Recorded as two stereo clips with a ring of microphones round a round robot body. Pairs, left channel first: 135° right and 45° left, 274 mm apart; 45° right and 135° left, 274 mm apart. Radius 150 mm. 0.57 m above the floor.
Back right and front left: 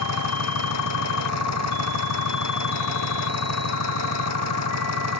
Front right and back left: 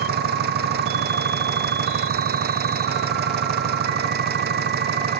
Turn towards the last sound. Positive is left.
turn(degrees=-170)